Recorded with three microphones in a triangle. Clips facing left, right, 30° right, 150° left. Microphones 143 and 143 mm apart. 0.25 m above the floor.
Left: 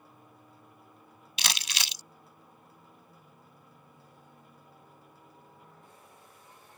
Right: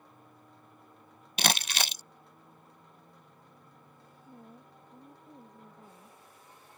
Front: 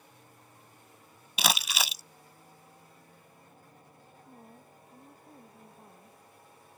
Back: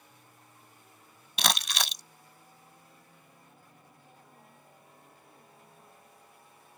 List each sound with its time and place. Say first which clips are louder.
1.4 s crumpling: right 7 dB, front 1 dB; 115° right
4.3 s a woman speaking: right 5 dB, front 5 dB; 80° right